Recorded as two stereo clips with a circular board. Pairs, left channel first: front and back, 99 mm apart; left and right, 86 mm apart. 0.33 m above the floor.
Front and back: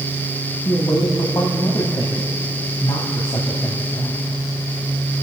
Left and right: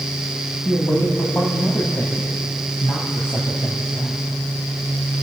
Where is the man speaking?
30° left, 1.8 m.